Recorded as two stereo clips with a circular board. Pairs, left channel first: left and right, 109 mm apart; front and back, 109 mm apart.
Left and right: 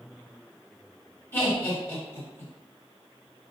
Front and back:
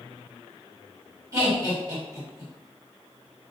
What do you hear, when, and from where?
1.3 s laughter: 140° left, 1.4 m